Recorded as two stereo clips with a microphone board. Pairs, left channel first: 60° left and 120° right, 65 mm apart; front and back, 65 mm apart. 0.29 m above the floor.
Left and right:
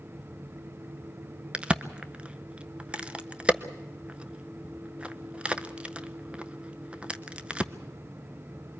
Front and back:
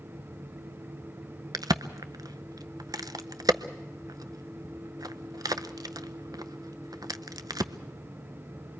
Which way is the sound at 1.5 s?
170° left.